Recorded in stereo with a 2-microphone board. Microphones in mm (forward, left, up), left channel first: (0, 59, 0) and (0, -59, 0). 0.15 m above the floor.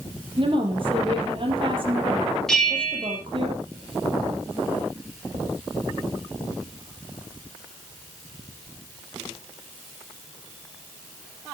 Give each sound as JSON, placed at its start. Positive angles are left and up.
{"t": 0.4, "sound": "a woman speaking", "side_deg": -45, "distance_m": 4.0}
{"t": 2.5, "sound": "a bell", "side_deg": 5, "distance_m": 3.5}